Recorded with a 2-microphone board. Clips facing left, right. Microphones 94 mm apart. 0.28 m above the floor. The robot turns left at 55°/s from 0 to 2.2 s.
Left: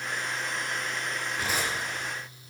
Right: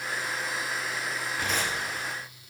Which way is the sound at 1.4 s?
5° right (ahead or behind).